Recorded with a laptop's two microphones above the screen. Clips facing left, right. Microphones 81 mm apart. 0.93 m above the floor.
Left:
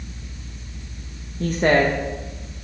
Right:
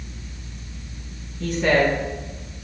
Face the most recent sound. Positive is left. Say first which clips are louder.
# left 1 dB
turn(degrees=40)  # may be behind; listen again after turning